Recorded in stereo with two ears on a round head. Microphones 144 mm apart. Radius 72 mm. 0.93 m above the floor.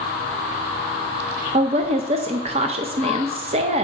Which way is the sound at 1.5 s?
40° right (ahead or behind).